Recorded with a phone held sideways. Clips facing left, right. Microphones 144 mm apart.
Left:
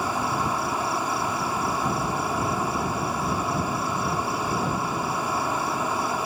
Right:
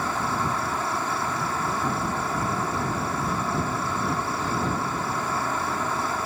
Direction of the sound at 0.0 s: 10° left (ahead or behind).